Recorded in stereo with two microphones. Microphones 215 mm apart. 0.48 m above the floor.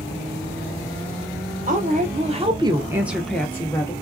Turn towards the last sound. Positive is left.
turn(degrees=20)  # may be behind; listen again after turning